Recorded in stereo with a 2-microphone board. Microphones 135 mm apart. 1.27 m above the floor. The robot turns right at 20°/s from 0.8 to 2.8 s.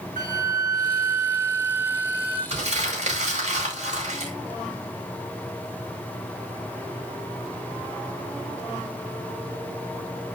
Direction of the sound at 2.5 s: 50° right (ahead or behind).